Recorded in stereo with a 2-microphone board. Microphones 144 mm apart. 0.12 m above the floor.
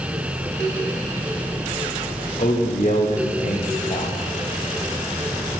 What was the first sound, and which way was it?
A man speaking, 55° left (ahead or behind).